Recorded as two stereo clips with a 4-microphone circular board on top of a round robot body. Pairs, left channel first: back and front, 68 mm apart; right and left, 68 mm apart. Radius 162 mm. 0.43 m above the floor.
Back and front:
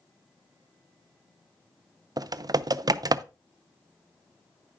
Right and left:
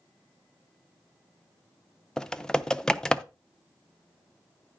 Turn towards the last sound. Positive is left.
turn(degrees=-10)